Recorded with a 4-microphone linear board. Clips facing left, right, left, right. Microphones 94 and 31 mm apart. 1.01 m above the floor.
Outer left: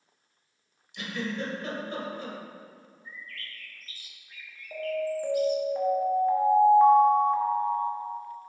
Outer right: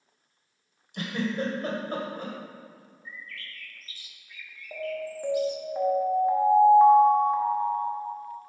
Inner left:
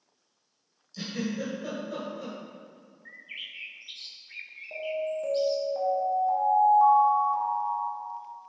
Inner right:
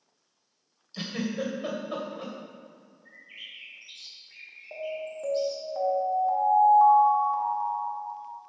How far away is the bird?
About 1.0 m.